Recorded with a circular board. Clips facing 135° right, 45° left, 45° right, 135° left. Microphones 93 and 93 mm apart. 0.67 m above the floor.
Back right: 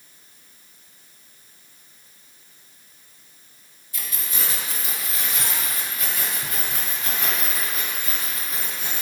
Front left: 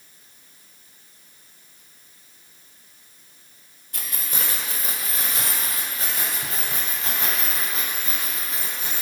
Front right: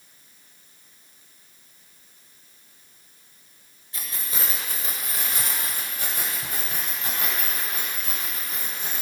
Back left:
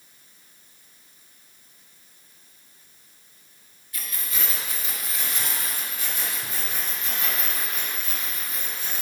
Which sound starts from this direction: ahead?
Keys jangling, at 3.9 s.